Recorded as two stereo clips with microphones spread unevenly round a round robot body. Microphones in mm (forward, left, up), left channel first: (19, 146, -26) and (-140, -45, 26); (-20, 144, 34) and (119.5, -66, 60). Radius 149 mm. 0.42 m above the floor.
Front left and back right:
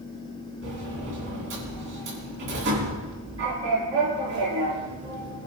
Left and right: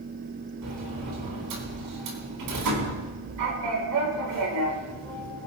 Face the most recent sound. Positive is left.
turn(degrees=-70)